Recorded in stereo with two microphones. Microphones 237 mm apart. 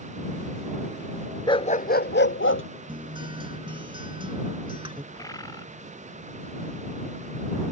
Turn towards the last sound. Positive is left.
turn(degrees=15)  # may be behind; listen again after turning